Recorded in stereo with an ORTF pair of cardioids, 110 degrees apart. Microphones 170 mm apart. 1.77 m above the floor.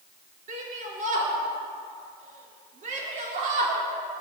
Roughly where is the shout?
Ahead right.